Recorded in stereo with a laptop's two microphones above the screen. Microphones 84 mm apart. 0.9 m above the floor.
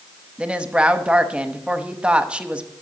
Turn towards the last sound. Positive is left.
turn(degrees=-10)  # may be behind; listen again after turning